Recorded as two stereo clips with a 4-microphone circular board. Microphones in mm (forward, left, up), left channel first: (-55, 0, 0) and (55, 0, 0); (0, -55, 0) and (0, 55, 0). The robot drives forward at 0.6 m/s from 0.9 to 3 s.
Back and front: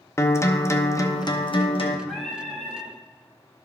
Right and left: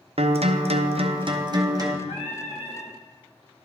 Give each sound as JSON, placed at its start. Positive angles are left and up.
{"t": 0.2, "sound": "a guitar", "azimuth_deg": 115, "distance_m": 0.6}
{"t": 2.1, "sound": "singing", "azimuth_deg": -90, "distance_m": 1.6}